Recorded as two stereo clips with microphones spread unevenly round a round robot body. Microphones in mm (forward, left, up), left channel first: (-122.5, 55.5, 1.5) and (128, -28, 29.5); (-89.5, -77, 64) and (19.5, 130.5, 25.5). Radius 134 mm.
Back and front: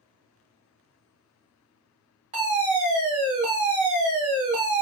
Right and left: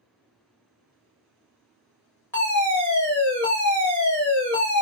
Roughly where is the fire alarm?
Ahead right.